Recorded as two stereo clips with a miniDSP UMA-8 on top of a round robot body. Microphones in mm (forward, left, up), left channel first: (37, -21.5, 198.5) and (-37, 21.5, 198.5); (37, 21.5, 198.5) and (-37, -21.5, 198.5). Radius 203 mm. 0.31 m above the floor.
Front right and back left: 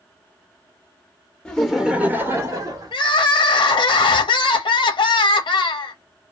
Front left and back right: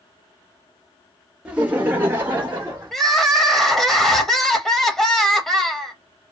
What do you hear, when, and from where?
1.4 s laughter: 90° right, 1.2 m; by 2.9 s 155° left, 1.6 m
2.9 s crying: 60° right, 0.6 m